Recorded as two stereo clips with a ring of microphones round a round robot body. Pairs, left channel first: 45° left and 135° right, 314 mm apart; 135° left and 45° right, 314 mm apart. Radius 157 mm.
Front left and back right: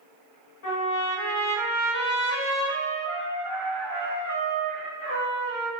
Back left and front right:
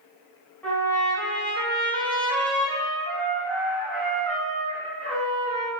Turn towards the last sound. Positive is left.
turn(degrees=50)